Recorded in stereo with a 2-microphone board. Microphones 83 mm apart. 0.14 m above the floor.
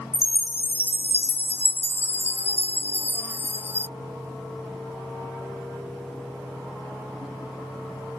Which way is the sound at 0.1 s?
25° left (ahead or behind).